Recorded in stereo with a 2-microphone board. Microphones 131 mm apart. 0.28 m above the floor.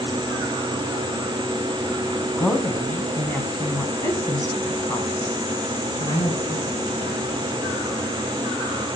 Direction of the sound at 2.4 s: 5° left (ahead or behind).